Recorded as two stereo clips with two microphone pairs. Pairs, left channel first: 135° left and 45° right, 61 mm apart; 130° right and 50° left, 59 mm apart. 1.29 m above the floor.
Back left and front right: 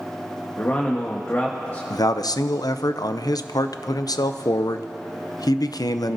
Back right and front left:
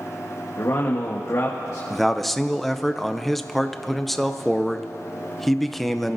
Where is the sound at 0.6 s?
170° right, 1.3 m.